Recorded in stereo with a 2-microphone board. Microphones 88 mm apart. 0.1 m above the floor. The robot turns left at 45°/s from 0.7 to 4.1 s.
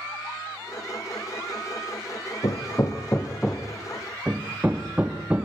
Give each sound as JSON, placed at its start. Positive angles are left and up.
{"t": 2.4, "sound": "hammering", "side_deg": 50, "distance_m": 2.5}